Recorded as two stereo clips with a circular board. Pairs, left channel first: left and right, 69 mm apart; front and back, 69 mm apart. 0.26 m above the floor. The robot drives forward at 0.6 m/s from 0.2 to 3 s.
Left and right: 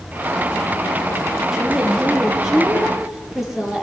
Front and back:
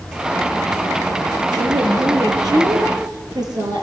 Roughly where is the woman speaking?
Behind.